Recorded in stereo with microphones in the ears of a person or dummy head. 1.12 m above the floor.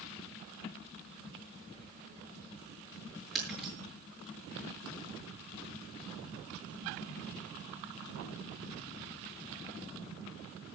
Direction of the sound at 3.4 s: 5° left (ahead or behind).